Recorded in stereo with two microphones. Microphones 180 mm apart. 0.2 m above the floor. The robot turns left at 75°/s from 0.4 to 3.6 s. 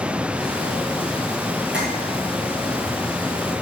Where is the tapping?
75° right (ahead or behind), 5.5 m; by 1.9 s 65° right (ahead or behind), 5.5 m.